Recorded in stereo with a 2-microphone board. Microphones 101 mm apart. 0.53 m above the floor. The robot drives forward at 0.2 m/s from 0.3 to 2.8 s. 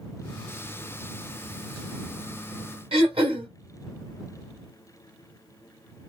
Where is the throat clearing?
75° right (ahead or behind), 1.3 m.